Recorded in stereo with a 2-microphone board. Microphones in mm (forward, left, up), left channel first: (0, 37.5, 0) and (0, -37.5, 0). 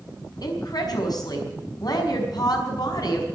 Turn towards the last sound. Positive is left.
turn(degrees=60)  # may be behind; listen again after turning